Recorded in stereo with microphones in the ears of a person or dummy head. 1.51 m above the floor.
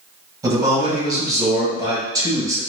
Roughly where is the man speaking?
Right.